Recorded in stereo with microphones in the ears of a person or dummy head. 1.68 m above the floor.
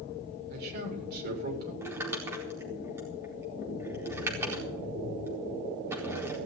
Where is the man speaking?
55° right (ahead or behind), 7.5 m.